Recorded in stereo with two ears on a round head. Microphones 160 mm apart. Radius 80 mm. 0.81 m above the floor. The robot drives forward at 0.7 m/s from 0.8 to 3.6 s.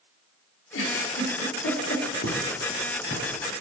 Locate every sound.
0.7 s a giggle: 80° left, 1.5 m; by 2.0 s 65° left (ahead or behind), 1.6 m
2.2 s footsteps: 50° left (ahead or behind), 3.5 m; by 3.4 s 40° left (ahead or behind), 3 m